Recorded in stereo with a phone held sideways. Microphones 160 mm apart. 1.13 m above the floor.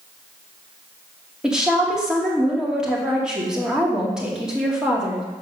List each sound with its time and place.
1.4 s a woman speaking: 5° right (ahead or behind), 2.5 m